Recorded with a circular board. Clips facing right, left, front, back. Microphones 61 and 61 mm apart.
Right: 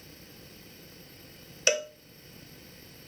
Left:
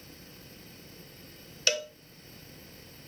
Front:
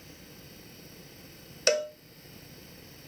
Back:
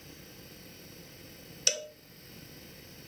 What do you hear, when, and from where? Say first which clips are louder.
1.7 s a cowbell: right 3 dB, front 11 dB; 25° right, 0.5 m